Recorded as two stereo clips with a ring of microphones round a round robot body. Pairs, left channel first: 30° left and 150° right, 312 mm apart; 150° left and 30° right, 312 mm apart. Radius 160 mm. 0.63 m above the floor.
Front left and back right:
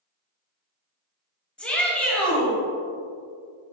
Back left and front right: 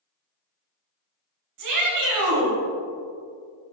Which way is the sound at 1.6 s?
55° right.